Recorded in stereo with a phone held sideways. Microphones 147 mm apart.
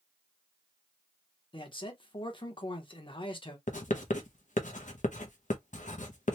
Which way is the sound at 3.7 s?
65° left (ahead or behind).